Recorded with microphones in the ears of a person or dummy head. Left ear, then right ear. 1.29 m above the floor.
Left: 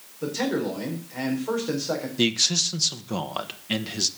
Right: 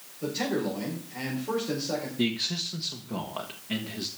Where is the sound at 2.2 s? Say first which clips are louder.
Left 10 dB; 85° left, 1.1 m.